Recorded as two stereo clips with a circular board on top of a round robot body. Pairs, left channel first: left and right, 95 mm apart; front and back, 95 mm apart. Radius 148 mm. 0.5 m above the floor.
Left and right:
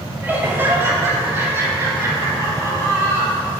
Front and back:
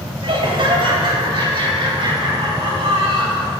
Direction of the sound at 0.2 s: 160° right.